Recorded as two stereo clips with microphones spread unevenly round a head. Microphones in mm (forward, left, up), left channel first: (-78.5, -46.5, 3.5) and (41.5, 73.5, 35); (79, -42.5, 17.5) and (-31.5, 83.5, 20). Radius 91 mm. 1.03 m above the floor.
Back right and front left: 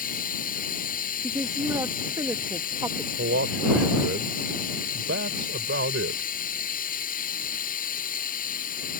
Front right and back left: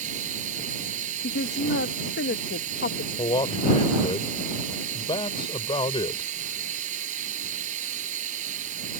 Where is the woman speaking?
30° right.